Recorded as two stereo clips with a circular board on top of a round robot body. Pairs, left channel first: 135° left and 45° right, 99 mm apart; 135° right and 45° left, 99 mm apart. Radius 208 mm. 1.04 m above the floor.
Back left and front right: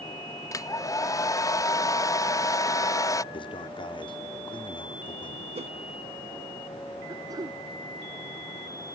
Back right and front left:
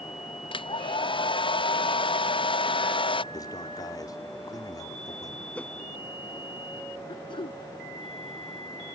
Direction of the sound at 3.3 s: 170° left.